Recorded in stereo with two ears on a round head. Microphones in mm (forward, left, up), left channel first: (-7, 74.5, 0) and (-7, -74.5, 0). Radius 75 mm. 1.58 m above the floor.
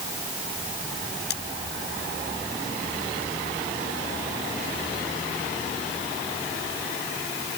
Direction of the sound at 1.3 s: 70° left (ahead or behind).